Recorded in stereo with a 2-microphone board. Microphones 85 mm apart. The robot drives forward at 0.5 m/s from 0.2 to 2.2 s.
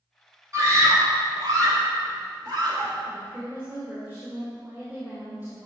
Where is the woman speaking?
30° right (ahead or behind), 2 m.